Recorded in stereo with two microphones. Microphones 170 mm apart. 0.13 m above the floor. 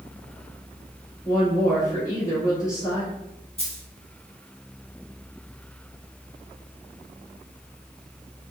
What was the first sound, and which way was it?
A woman speaking, 20° left (ahead or behind).